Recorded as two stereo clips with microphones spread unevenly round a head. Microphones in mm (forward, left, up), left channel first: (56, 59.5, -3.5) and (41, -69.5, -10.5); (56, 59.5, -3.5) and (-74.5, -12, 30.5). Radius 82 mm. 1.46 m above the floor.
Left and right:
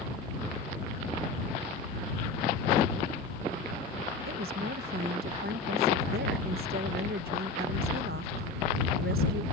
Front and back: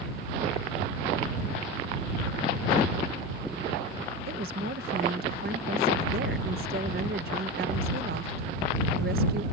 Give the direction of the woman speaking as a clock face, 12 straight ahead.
4 o'clock.